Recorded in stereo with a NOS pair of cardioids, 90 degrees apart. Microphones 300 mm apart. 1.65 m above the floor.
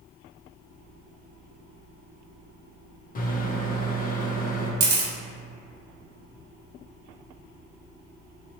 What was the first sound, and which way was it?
A microwave, 30° left.